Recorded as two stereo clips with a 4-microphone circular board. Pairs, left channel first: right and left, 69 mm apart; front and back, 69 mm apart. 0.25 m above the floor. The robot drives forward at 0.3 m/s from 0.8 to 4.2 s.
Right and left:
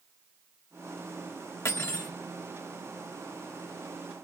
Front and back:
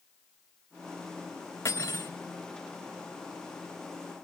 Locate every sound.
1.6 s cutlery clinking: 50° right, 2 m